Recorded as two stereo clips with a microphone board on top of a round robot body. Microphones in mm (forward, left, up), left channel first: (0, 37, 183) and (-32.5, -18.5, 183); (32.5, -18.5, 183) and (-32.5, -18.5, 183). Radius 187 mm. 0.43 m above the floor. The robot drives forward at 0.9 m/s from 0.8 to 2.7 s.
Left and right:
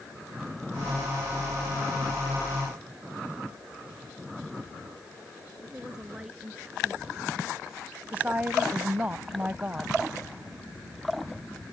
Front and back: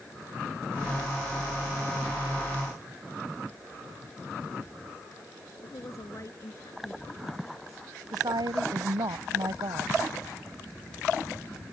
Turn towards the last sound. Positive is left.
turn(degrees=170)